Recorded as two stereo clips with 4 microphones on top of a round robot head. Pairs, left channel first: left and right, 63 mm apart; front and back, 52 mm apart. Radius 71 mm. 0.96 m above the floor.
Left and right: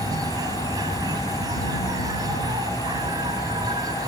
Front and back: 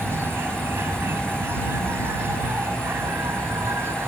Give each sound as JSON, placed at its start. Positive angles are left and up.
{"t": 0.0, "sound": "an insect", "azimuth_deg": -120}